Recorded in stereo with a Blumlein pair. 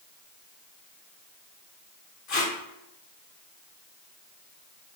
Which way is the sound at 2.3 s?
35° left.